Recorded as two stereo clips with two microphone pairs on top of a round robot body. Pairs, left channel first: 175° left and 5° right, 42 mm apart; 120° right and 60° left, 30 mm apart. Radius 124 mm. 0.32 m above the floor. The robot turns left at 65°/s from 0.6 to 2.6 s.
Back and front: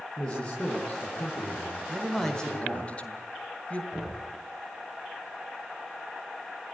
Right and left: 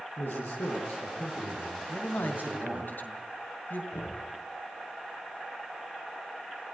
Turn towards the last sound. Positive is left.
turn(degrees=-100)